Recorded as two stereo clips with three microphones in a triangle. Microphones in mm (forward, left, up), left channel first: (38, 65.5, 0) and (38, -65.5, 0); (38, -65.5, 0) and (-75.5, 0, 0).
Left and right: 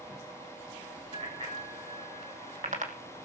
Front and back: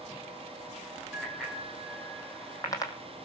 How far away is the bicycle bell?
About 4 m.